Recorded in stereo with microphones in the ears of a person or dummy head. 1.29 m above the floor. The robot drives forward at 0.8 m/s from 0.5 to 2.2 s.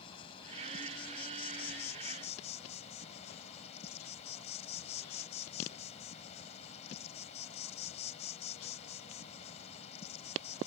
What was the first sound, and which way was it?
An insect, 30° left (ahead or behind).